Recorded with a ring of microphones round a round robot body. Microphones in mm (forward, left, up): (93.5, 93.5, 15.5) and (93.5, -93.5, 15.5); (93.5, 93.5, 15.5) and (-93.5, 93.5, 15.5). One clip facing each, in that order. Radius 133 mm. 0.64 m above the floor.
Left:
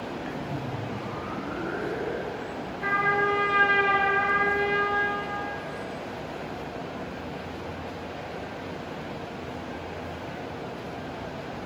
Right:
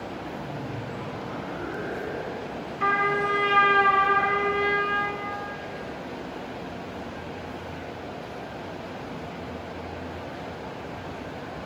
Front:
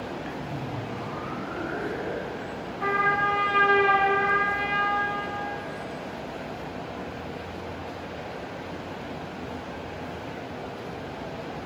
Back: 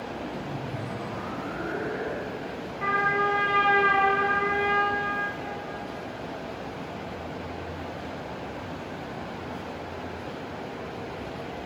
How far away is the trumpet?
About 3 m.